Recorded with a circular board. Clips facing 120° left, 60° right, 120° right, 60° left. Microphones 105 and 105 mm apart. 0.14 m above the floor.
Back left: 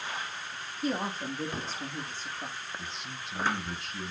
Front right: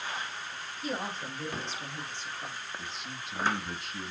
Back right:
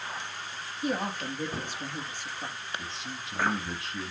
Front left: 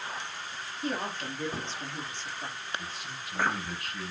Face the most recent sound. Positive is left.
turn(degrees=-145)